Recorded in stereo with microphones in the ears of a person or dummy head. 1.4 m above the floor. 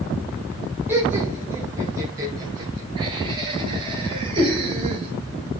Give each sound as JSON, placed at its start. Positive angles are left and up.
{"t": 0.9, "sound": "laughter", "side_deg": -15, "distance_m": 5.5}